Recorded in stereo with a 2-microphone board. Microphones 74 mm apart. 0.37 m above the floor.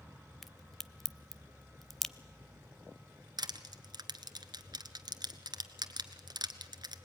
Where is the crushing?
70° right (ahead or behind), 1.1 m.